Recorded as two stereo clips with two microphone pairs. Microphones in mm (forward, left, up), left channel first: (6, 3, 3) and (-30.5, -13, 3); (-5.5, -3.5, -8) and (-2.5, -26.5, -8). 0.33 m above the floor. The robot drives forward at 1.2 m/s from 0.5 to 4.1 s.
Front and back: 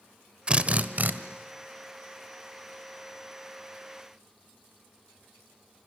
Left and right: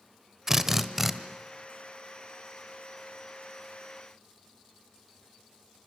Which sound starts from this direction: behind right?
A drill, at 0.5 s.